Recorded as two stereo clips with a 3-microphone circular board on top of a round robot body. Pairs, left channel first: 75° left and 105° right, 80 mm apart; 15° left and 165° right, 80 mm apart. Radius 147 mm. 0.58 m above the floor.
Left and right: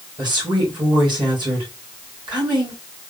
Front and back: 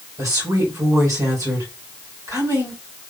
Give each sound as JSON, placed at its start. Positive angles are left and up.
{"t": 0.2, "sound": "a woman speaking", "azimuth_deg": -120, "distance_m": 3.0}